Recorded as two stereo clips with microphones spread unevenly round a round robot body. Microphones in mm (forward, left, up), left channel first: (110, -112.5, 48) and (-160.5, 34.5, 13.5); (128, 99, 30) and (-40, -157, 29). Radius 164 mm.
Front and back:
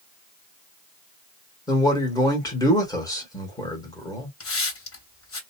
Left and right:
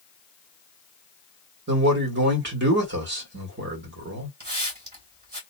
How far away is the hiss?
About 2 m.